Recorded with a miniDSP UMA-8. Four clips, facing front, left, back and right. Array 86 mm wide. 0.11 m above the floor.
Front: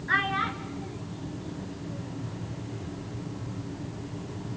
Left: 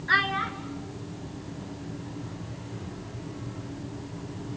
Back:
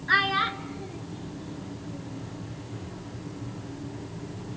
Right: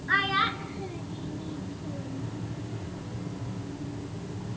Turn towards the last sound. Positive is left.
turn(degrees=-100)